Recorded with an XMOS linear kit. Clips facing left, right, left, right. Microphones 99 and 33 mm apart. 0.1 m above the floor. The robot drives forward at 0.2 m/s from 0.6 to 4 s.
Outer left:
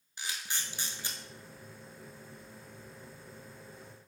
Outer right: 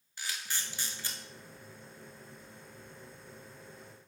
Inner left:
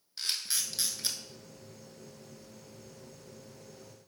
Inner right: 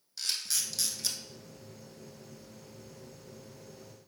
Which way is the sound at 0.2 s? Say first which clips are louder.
Even, even; 20° left (ahead or behind).